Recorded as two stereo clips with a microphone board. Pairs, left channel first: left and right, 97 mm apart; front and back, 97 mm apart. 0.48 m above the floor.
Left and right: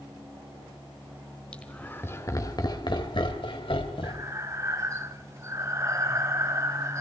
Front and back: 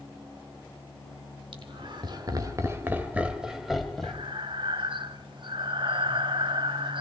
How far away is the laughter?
About 3 m.